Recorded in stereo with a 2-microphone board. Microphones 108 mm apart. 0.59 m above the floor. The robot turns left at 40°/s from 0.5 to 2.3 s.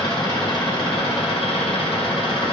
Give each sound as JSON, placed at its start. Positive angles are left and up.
{"t": 0.0, "sound": "an engine running", "azimuth_deg": 135, "distance_m": 1.9}